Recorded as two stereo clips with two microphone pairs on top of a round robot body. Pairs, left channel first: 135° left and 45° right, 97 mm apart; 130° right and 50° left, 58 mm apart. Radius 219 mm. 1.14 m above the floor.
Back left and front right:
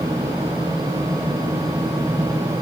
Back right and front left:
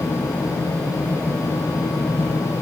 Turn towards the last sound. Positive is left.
No sound to turn to.